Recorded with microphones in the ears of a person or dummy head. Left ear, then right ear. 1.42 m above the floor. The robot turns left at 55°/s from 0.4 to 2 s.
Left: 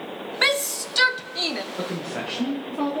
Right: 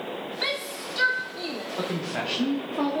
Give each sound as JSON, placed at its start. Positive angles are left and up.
{"t": 0.4, "sound": "a shout", "side_deg": 50, "distance_m": 0.8}
{"t": 1.8, "sound": "a woman speaking", "side_deg": 0, "distance_m": 1.0}